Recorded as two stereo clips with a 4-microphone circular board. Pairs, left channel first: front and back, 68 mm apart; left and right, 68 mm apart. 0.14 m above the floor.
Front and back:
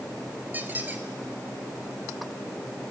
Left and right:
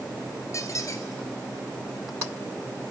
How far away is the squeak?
About 1.2 m.